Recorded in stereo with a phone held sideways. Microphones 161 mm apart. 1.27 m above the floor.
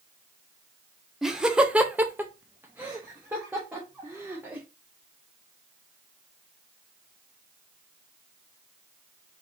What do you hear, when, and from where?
1.2 s laughter: 5° right (ahead or behind), 0.8 m; by 4.6 s 10° right (ahead or behind), 1.8 m